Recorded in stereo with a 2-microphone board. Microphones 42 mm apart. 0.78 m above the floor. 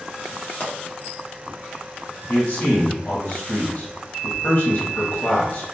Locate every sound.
0.6 s a pop: 70° left (ahead or behind), 1.0 m
2.3 s a man speaking: 55° left (ahead or behind), 1.4 m